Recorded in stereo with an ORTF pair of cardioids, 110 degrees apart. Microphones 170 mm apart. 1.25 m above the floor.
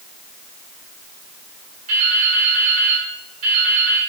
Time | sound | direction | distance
1.9 | dripping | 50° right | 2 m